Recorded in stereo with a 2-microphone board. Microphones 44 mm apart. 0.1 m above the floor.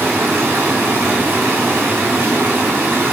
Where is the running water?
50° right (ahead or behind), 1.2 m.